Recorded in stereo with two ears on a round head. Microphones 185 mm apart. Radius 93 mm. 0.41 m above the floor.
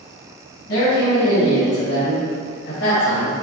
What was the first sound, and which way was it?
A man speaking, 60° left (ahead or behind).